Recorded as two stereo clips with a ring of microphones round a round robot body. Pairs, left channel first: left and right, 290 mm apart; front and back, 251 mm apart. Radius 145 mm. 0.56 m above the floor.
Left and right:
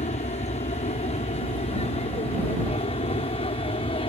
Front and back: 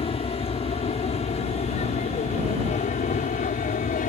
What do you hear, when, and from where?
0.0 s an aircraft: 45° left; by 4.1 s 30° left